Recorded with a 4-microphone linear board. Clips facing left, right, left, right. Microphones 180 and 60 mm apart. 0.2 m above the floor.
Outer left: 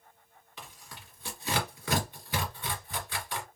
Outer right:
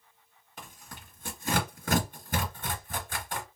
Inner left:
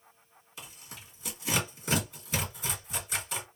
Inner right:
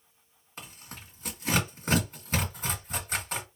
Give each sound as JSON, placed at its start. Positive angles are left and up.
{"t": 0.6, "sound": "tearing paper", "side_deg": -45, "distance_m": 1.5}